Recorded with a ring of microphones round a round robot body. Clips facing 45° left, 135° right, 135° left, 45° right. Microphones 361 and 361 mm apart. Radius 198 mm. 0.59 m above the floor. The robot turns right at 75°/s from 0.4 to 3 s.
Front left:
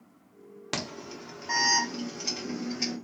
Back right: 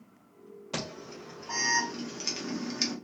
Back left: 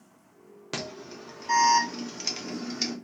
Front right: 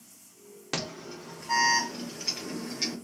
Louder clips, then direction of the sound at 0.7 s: Front left 1 dB, front right 1 dB; 40° left.